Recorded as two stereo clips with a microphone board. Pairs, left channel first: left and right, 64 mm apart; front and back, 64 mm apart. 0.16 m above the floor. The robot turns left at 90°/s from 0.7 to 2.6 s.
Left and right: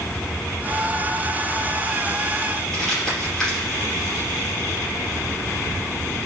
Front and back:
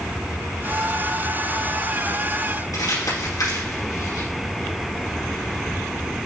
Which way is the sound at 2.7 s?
5° left.